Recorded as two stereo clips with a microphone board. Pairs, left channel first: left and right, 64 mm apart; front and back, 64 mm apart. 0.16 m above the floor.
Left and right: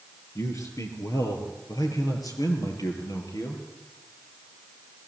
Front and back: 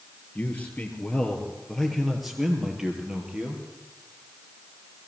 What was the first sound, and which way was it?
A man speaking, 60° left.